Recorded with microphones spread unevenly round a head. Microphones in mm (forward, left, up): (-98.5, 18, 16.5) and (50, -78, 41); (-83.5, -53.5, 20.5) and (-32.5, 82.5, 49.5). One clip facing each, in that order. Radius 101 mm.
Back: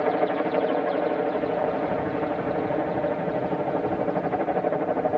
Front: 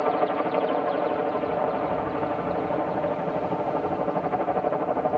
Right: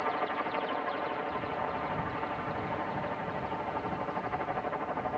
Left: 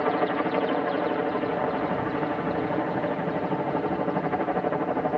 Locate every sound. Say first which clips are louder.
0.0 s a helicopter: back 1 dB, left 9 dB; 75° left